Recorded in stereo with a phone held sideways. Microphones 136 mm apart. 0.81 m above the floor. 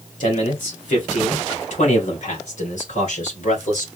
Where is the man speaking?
65° left (ahead or behind), 2.5 m.